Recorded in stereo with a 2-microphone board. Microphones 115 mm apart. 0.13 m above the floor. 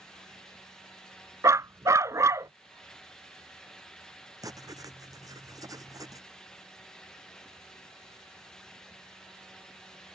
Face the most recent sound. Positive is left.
turn(degrees=-30)  # may be behind; listen again after turning